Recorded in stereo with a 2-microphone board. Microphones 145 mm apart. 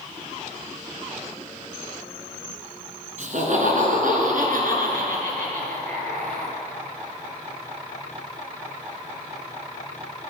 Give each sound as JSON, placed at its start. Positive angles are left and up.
{"t": 3.2, "sound": "laughter", "side_deg": -60, "distance_m": 3.0}